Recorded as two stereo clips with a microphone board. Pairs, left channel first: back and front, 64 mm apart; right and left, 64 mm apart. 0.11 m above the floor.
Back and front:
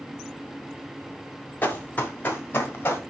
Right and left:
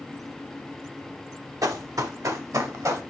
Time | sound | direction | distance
1.6 | running footsteps | 115° left | 1.6 m